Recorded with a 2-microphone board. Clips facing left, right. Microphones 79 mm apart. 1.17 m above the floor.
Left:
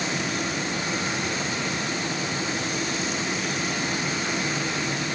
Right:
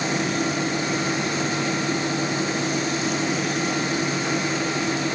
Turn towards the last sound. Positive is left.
No sound to turn to.